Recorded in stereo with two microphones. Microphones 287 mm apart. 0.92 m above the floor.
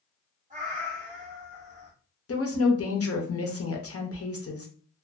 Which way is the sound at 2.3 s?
50° left (ahead or behind).